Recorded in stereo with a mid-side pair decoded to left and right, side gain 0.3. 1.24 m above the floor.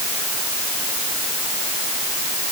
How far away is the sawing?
No sawing in this recording.